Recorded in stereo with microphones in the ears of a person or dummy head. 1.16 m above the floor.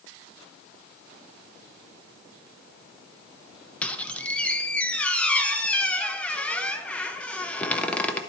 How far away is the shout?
No shout in this recording.